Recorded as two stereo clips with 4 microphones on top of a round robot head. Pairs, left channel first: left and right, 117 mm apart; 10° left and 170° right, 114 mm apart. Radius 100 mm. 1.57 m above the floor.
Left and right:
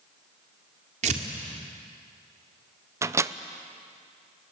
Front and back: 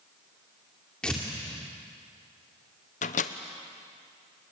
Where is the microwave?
25° right, 0.8 m.